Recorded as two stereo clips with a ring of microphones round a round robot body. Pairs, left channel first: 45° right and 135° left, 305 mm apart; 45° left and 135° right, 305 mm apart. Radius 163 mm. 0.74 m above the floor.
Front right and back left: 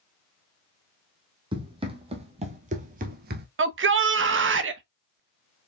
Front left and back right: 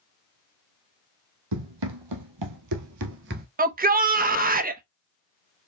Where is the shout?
170° left, 1.2 m.